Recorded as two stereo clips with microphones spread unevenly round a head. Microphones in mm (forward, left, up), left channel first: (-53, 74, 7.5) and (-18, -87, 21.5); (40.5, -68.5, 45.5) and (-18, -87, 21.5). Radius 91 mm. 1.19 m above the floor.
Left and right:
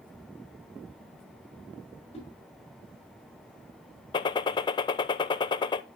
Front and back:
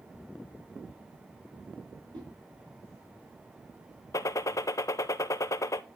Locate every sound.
2.1 s a whoosh: 160° left, 6 m
4.1 s a gunshot: 65° left, 0.6 m